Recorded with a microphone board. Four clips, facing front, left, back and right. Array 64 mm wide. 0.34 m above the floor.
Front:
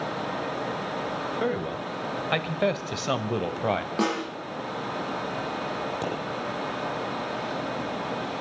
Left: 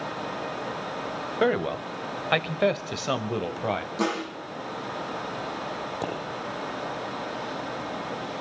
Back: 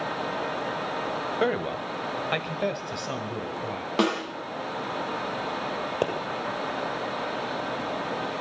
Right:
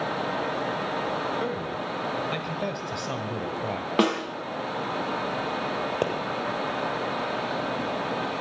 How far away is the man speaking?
About 1.7 m.